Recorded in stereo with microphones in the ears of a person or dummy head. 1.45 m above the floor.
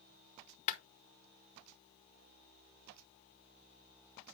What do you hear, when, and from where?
0.7 s a clap: 45° left (ahead or behind), 0.8 m